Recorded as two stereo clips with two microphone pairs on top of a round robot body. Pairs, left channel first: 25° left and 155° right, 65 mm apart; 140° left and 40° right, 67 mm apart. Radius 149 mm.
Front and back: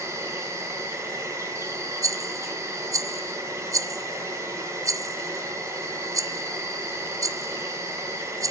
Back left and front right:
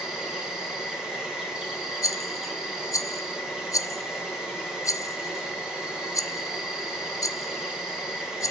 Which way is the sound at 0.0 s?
125° right.